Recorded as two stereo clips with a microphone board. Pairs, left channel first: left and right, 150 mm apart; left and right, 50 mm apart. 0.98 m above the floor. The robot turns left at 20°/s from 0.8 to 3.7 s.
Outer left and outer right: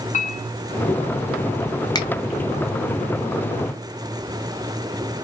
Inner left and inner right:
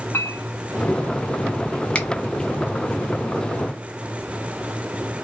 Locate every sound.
0.1 s a clink: 50° left (ahead or behind), 1.1 m; by 1.1 s 55° left (ahead or behind), 1.1 m
1.9 s a finger snap: 25° left (ahead or behind), 0.8 m